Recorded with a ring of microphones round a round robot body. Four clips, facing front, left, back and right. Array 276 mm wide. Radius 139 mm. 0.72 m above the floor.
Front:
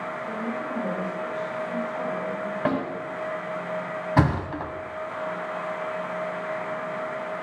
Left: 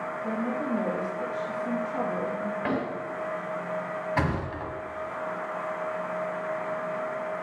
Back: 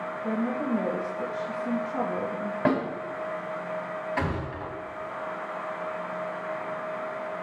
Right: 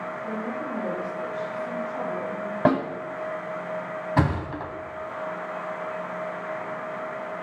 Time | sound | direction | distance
0.2 | a woman speaking | 150° left | 3 m
2.6 | a snare drum | 95° right | 4.5 m
4.2 | a thud | 25° right | 2.5 m